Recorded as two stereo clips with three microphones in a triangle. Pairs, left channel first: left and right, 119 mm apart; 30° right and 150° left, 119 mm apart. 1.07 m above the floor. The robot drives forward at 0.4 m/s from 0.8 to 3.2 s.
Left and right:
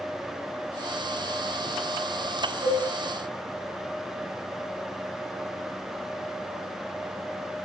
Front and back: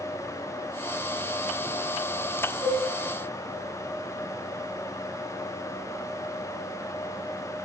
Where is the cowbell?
95° right, 5 m; by 2.8 s 100° right, 5 m.